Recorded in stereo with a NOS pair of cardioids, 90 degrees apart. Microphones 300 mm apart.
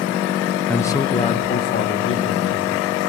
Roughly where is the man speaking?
Ahead.